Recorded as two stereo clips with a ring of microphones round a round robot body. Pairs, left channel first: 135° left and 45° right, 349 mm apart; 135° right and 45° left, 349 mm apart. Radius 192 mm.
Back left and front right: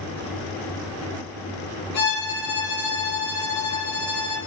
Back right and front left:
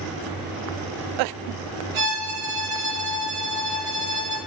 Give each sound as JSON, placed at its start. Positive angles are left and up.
{"t": 1.9, "sound": "a violin", "azimuth_deg": 70, "distance_m": 3.5}